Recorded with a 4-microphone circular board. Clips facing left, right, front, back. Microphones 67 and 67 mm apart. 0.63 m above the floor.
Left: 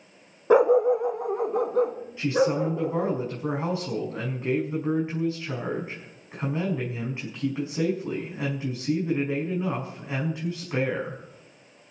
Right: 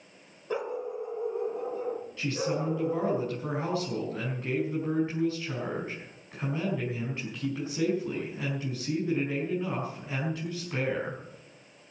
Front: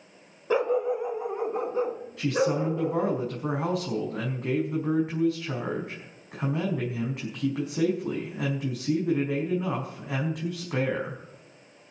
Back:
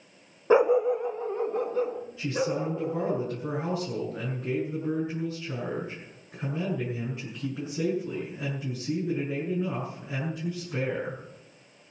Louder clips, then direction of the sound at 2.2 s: Left 9 dB, front 4 dB; 20° left.